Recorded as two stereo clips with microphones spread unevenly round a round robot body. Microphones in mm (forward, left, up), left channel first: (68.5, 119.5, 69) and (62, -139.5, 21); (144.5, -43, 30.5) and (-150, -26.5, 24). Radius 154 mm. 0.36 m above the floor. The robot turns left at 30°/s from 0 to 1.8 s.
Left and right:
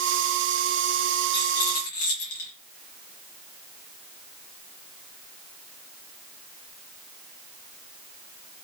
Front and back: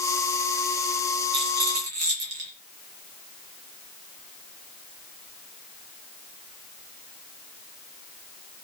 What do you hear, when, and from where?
1.3 s a rattle: 145° left, 4.5 m; by 2.5 s 135° left, 4.5 m